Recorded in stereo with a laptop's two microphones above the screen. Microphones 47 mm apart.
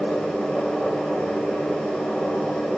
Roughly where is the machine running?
Centre.